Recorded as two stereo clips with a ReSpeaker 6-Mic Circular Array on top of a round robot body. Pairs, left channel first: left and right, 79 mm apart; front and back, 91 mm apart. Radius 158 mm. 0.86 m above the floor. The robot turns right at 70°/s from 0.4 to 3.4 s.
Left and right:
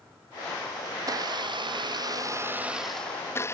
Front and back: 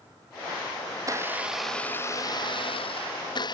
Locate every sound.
1.0 s a blender: 135° right; by 3.5 s 35° left